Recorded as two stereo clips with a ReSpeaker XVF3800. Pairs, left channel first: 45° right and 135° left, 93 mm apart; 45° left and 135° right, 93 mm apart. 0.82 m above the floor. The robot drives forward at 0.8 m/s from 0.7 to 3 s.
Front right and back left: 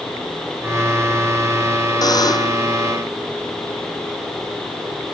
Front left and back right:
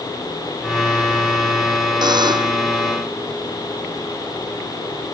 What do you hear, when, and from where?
2.0 s a buzzer: 95° right